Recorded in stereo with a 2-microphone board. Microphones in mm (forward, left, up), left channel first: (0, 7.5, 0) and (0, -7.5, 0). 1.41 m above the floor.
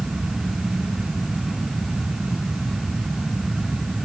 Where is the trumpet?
No trumpet in this recording.